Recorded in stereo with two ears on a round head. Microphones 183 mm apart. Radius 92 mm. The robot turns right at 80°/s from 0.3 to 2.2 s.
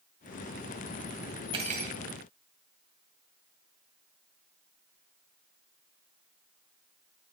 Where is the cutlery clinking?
155° right, 1.6 m; by 2.0 s 115° right, 1.6 m.